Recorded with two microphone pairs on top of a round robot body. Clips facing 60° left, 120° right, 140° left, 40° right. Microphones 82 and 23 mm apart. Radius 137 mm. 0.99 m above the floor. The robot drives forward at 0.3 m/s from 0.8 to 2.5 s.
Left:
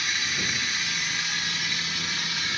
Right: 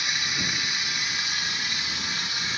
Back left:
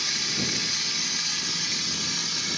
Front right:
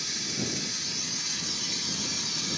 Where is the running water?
165° left, 0.8 m; by 2.6 s 170° left, 1.3 m.